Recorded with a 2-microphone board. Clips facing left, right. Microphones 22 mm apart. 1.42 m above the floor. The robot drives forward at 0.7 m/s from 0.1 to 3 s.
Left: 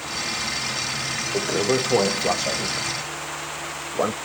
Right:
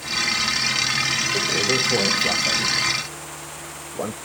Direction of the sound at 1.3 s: 30° left (ahead or behind).